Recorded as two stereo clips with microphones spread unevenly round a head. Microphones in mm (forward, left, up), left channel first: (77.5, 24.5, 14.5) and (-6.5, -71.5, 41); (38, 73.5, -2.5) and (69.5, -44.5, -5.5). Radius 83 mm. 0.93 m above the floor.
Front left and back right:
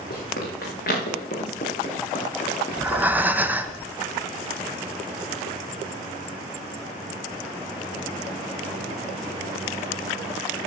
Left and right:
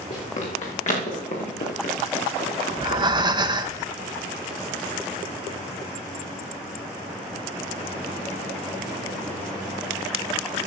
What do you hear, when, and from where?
0.1 s running footsteps: 75° left, 5 m; by 3.7 s 125° left, 5 m
2.7 s breathing: 45° right, 0.7 m